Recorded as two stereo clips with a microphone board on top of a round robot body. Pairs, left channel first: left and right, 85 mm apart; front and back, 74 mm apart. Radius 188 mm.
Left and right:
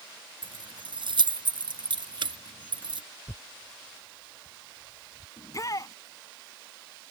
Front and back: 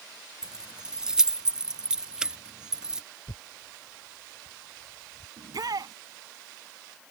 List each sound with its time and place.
0.4 s keys jangling: 100° right
3.3 s tearing paper: 15° left
5.4 s a shout: 140° left